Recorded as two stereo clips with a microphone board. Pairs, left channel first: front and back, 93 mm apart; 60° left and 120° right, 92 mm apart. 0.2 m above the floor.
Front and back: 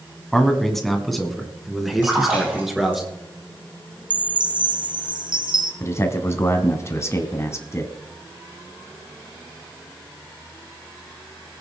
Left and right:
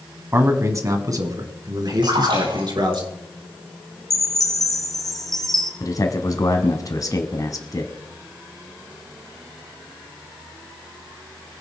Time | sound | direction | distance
0.3 | a man speaking | 80° right | 1.6 m
2.0 | a splash | 110° right | 8 m
4.1 | a chime | 150° left | 1.7 m
5.8 | a man speaking | 40° left | 1.4 m